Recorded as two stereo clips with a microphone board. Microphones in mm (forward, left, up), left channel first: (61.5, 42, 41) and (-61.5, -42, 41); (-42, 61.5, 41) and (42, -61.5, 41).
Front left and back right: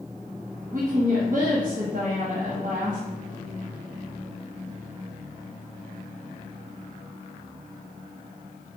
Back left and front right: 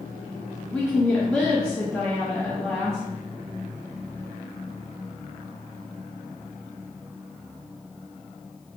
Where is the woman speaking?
155° right, 0.6 m.